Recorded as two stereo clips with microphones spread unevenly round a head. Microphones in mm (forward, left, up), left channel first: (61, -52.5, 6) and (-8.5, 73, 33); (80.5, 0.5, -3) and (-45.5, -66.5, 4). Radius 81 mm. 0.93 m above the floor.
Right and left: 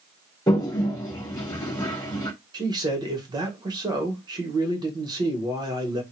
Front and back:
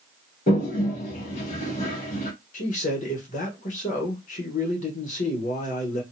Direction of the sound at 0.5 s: Straight ahead.